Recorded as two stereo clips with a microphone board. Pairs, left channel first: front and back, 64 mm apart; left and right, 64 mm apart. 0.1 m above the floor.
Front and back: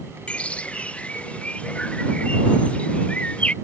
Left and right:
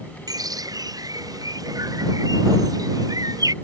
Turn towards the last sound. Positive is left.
turn(degrees=-70)